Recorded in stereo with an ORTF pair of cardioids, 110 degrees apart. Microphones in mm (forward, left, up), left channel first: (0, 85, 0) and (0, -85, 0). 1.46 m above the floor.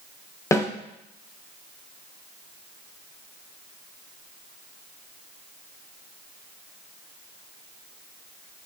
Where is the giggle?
No giggle in this recording.